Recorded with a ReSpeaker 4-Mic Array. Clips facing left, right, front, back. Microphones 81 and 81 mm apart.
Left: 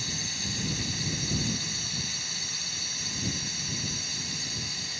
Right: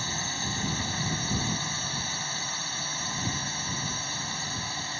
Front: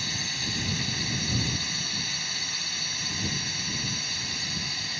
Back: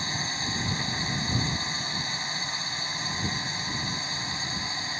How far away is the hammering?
I don't hear hammering.